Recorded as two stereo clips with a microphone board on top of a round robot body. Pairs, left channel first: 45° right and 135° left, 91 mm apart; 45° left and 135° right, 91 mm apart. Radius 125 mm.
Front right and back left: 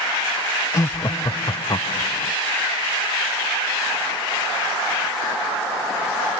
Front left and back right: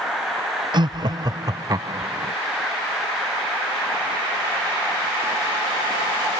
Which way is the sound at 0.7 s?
100° right.